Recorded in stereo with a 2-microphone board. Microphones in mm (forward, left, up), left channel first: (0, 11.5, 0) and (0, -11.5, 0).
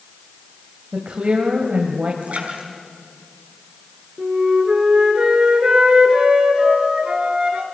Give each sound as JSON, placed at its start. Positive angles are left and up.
{"t": 0.9, "sound": "a woman speaking", "side_deg": -65, "distance_m": 2.0}
{"t": 2.2, "sound": "a splash", "side_deg": -80, "distance_m": 5.5}
{"t": 4.2, "sound": "a flute", "side_deg": -45, "distance_m": 3.5}